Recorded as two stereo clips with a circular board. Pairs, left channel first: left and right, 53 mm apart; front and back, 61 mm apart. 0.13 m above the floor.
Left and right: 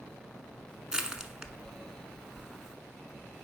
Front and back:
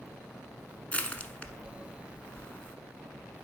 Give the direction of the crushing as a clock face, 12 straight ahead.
1 o'clock.